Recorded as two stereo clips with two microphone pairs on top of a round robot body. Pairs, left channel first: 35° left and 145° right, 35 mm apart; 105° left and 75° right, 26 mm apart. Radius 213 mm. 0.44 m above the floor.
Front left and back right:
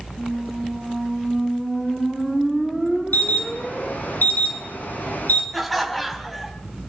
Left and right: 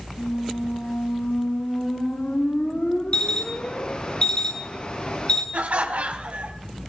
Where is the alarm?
60° left, 7 m.